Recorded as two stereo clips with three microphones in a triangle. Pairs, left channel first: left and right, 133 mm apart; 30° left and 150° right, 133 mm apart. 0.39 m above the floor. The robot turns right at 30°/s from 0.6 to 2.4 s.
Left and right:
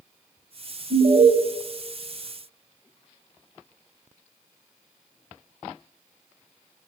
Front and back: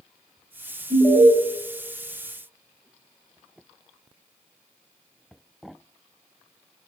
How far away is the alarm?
About 0.8 m.